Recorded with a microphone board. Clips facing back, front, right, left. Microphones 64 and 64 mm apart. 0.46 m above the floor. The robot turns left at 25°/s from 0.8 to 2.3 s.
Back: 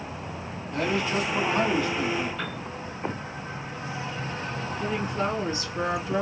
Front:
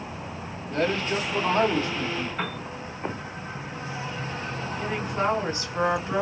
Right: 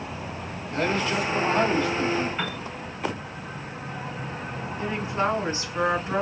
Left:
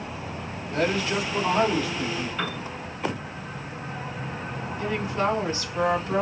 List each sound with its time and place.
0.7 s a man speaking: 35° left, 2 m; by 2.3 s 5° right, 2 m
2.4 s a piano: 25° right, 2.5 m
4.8 s a woman speaking: 30° right, 2.5 m